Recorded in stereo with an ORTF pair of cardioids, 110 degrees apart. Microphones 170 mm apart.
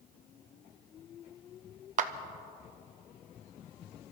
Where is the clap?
50° right, 0.9 m.